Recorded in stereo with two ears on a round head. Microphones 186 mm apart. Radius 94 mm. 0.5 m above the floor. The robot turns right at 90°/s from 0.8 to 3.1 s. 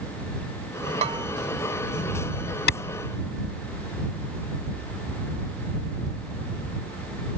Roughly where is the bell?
Right.